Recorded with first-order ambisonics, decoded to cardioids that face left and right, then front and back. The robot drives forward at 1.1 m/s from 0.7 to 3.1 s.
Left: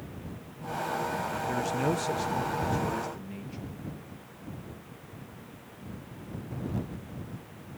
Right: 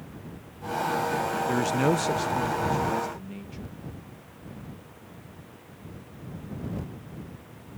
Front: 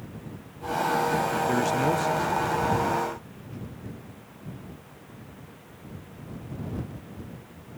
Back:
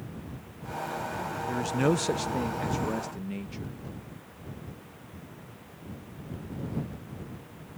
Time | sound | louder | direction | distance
1.5 | a man speaking | right 4 dB, back 1 dB | 40° right | ?